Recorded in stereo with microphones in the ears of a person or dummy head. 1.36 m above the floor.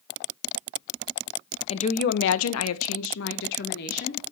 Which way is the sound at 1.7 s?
25° left (ahead or behind).